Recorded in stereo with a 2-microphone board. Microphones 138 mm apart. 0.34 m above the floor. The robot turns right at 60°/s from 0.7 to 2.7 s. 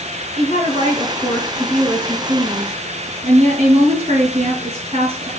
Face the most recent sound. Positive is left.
turn(degrees=-125)